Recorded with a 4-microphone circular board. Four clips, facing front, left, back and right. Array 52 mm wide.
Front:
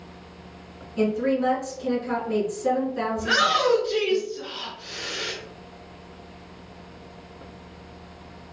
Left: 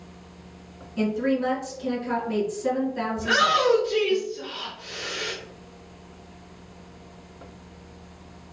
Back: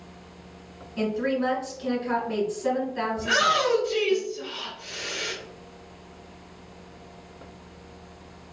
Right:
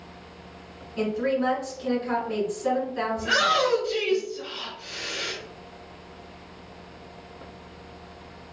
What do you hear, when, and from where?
1.0 s a woman speaking: 145° right, 1.5 m
3.2 s a shout: 5° left, 1.8 m